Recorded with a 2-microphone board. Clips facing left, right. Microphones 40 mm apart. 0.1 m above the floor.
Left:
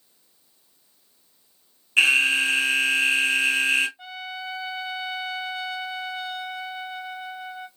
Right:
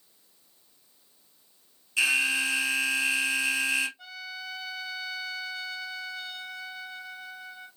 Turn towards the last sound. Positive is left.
turn(degrees=25)  # may be behind; listen again after turning